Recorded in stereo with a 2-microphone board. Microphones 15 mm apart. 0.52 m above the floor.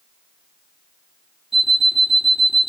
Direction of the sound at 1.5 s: 10° right (ahead or behind).